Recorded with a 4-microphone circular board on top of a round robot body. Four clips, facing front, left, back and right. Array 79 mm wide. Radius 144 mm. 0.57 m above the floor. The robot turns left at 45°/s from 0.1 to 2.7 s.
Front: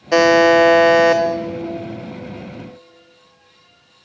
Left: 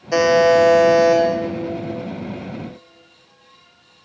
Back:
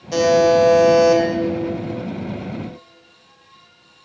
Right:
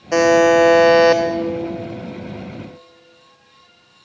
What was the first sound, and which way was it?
A buzzer, 15° right.